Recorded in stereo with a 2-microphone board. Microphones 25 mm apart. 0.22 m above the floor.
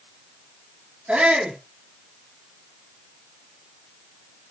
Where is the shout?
70° right (ahead or behind), 4.5 m.